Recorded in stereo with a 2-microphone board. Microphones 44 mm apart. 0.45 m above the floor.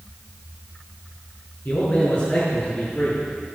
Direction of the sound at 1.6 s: 50° left (ahead or behind).